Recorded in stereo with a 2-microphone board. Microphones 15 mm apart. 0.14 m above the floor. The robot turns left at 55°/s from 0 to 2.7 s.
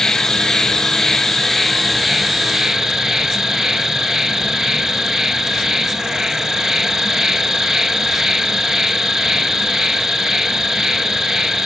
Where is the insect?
105° left, 0.9 m; by 11.7 s 45° right, 0.9 m.